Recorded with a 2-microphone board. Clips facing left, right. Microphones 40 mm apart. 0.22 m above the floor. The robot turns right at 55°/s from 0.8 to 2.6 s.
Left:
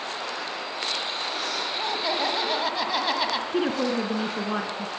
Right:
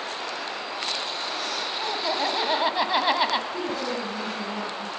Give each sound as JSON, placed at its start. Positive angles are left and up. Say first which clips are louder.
{"t": 1.8, "sound": "laughter", "louder": "even", "azimuth_deg": 165, "distance_m": 1.6}
{"t": 3.5, "sound": "a woman speaking", "louder": "left 4 dB", "side_deg": 55, "distance_m": 2.5}